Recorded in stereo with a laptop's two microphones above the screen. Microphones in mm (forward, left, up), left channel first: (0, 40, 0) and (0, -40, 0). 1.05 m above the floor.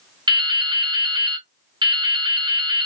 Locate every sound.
0.3 s dripping: 70° right (ahead or behind), 0.6 m